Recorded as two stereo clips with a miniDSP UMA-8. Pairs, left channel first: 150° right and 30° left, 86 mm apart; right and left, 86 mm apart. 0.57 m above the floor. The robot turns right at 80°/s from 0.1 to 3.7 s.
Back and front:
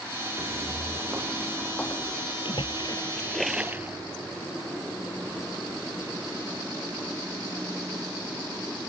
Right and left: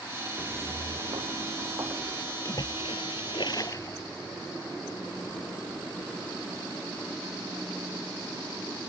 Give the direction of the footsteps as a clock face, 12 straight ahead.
11 o'clock.